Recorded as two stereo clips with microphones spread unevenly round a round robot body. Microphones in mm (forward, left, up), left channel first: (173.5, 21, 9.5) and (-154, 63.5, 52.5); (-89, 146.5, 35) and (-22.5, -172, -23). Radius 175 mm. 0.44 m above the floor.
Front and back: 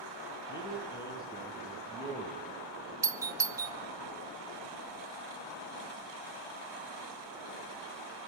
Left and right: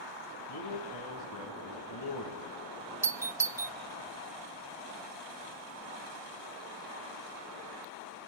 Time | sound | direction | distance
0.5 | a man speaking | 70° left | 5.5 m
3.0 | a doorbell | 100° right | 1.1 m